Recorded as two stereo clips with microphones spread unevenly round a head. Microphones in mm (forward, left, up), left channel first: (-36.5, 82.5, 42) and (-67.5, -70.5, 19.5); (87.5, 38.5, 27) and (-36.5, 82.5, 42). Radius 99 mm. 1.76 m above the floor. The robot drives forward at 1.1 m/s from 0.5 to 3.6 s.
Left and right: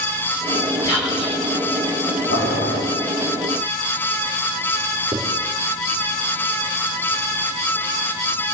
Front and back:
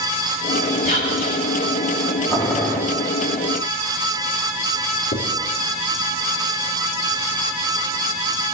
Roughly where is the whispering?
Ahead.